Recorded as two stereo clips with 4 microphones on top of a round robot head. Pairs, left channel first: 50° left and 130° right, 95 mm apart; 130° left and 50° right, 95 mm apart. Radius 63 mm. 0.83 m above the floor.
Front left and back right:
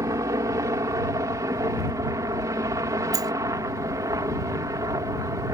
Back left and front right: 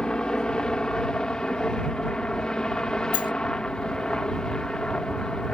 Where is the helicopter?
150° right.